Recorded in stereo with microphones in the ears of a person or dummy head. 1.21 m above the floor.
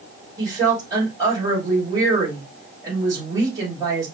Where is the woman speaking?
20° right (ahead or behind), 2.5 m.